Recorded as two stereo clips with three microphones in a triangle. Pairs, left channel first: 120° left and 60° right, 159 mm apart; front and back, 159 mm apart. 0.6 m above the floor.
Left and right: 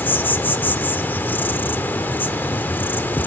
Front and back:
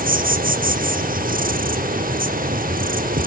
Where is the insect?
160° right, 1.0 m.